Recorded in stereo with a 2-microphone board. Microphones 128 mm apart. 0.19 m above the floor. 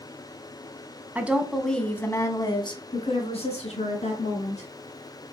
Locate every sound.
1.1 s a woman speaking: 15° right (ahead or behind), 1.2 m; by 4.7 s 65° left (ahead or behind), 2.5 m